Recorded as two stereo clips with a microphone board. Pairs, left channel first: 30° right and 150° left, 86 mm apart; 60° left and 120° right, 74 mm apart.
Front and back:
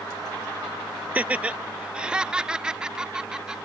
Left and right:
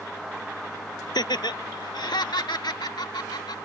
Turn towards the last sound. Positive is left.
turn(degrees=70)